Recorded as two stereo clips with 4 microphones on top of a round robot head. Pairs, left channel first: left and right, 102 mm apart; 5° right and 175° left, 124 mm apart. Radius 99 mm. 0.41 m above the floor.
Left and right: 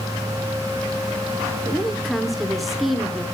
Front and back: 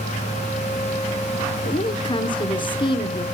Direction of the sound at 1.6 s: Straight ahead.